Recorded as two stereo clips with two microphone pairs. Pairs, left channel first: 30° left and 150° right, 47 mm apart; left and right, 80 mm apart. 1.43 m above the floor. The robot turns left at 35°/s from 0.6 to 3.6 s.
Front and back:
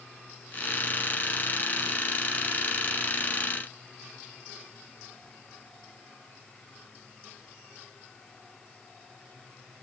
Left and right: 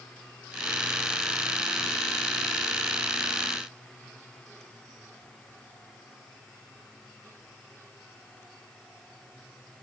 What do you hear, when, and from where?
Only background noise.